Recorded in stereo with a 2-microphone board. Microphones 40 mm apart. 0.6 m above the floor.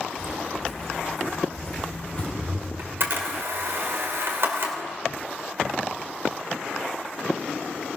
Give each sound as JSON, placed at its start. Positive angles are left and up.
{"t": 0.2, "sound": "footsteps", "side_deg": -15, "distance_m": 2.0}
{"t": 2.8, "sound": "a camera shutter", "side_deg": -65, "distance_m": 3.0}